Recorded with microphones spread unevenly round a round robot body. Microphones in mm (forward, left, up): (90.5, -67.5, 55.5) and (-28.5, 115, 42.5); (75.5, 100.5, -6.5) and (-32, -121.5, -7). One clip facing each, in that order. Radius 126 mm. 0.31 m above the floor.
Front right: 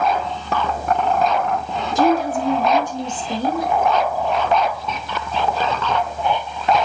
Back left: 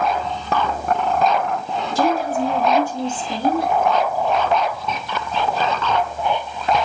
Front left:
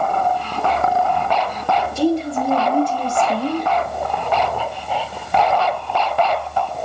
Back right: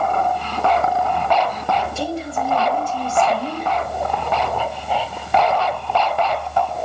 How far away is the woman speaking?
About 6 m.